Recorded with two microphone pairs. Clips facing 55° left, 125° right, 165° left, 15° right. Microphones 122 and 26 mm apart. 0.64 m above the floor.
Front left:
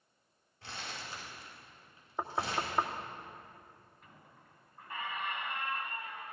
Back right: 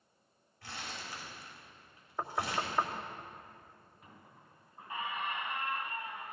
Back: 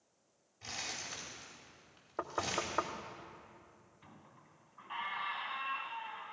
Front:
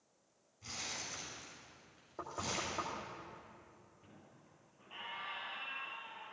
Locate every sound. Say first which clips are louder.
0.6 s crumpling: even, back 2 dB; 120° left, 4 m
2.2 s knocking: even, back 4 dB; 130° left, 0.9 m
4.0 s a squeak: back right 4 dB, back 6 dB; 155° left, 1.9 m